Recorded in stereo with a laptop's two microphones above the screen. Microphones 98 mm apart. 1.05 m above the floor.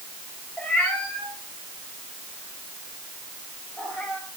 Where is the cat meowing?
10° left (ahead or behind), 6 m; by 4.2 s 5° left (ahead or behind), 7.5 m.